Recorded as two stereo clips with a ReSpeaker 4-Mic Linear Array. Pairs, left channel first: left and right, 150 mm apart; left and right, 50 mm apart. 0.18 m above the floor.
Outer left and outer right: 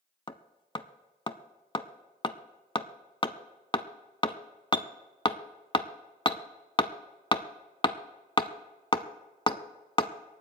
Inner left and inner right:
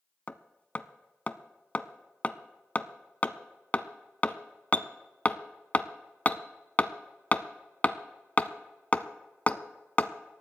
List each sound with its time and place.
0.3 s hammering: 35° left (ahead or behind), 0.6 m